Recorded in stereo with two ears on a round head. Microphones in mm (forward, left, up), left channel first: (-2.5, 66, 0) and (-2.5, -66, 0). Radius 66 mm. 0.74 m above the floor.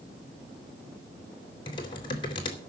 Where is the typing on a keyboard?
35° left (ahead or behind), 3 m.